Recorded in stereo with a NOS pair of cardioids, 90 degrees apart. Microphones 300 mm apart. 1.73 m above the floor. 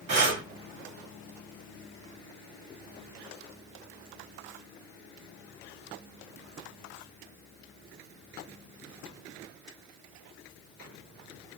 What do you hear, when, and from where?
0.1 s breathing: 55° right, 1.5 m